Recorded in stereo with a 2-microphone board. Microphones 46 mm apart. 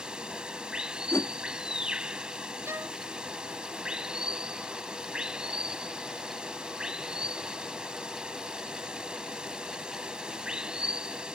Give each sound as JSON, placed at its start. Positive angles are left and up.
{"t": 0.0, "sound": "running water", "side_deg": -20}
{"t": 1.1, "sound": "a whoosh", "side_deg": 65}
{"t": 2.6, "sound": "a violin", "side_deg": -70}